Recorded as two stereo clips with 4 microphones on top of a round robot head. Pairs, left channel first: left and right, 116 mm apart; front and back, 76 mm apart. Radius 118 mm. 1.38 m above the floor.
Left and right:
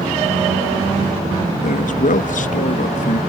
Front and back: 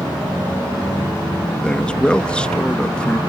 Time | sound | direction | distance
1.6 | a man speaking | 80° left | ?